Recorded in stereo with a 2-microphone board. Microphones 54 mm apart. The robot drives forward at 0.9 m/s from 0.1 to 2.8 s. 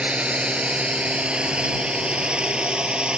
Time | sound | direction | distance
0.0 | a drone | 25° right (ahead or behind) | ?